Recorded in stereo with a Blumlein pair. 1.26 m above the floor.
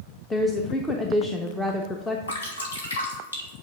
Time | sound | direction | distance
0.3 | a woman speaking | 10° left | 0.7 m
2.3 | dripping | 70° left | 1.8 m